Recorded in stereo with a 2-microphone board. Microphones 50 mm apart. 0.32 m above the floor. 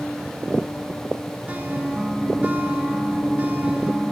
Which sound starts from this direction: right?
A guitar, at 1.5 s.